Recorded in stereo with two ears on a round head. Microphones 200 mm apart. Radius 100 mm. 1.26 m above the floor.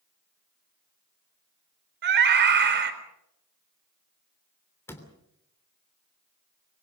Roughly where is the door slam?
Centre.